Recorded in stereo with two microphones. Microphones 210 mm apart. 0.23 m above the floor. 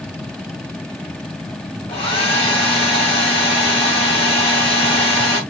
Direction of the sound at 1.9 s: 25° left (ahead or behind).